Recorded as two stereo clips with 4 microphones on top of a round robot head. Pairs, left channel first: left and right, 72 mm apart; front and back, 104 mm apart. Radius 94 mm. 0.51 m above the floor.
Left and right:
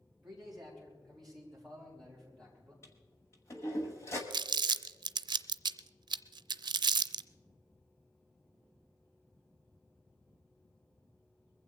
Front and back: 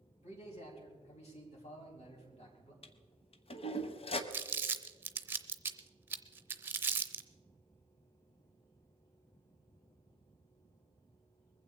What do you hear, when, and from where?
0.2 s a man speaking: 5° right, 4.5 m; by 2.7 s 10° left, 5 m
2.8 s a toilet flushing: 30° left, 1.1 m
4.3 s crumpling: 110° right, 0.5 m